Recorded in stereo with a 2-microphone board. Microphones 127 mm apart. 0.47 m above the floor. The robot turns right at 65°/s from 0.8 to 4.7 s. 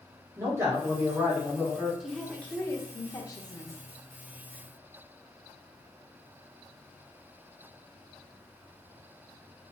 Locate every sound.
0.4 s a man speaking: 40° right, 1.3 m; by 1.9 s 30° left, 1.3 m
2.0 s a woman speaking: centre (ahead or behind), 0.8 m; by 3.8 s 25° left (ahead or behind), 0.8 m